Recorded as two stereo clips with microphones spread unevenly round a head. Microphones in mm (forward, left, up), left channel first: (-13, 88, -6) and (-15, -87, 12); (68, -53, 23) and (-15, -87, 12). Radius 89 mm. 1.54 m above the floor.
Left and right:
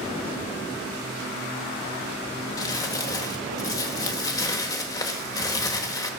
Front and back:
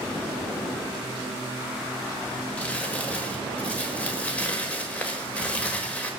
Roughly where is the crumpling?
Ahead left.